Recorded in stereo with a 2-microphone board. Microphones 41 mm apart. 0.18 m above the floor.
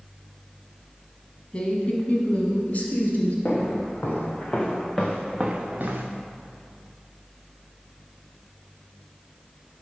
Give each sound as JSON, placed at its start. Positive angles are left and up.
{"t": 1.5, "sound": "a woman speaking", "side_deg": 30, "distance_m": 1.1}
{"t": 3.5, "sound": "footsteps", "side_deg": 45, "distance_m": 2.5}